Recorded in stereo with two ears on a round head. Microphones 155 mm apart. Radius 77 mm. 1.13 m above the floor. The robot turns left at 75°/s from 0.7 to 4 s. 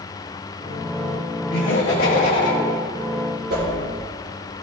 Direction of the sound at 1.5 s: 95° left.